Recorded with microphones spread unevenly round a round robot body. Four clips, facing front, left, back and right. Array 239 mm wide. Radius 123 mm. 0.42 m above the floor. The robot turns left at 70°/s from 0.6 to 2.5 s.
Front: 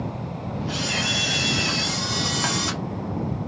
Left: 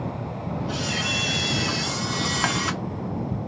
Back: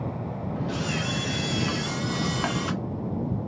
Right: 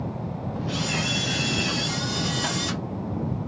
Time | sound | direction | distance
0.7 | a camera shutter | 160° right | 0.8 m